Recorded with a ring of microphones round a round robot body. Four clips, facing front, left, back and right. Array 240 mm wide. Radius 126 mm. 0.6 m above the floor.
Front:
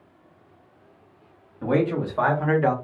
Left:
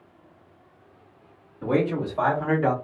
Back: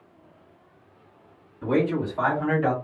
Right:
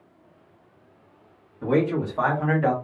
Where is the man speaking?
10° right, 1.5 m; by 2.7 s 30° right, 1.2 m.